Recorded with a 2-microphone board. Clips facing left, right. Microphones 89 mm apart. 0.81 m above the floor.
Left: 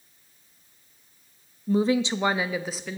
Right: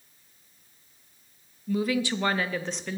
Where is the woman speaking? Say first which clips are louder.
Left 4 dB; 30° left (ahead or behind), 0.5 m; by 3.0 s centre (ahead or behind), 1.0 m.